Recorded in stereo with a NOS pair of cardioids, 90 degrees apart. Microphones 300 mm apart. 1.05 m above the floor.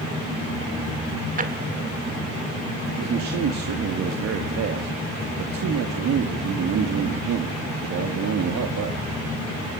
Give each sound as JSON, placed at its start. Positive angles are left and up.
{"t": 1.4, "sound": "a drawer", "azimuth_deg": -25, "distance_m": 1.9}
{"t": 3.0, "sound": "a man speaking", "azimuth_deg": -65, "distance_m": 1.9}